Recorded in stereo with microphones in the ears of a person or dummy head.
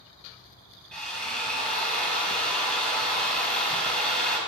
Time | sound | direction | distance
0.9 | a drill | centre (ahead or behind) | 3 m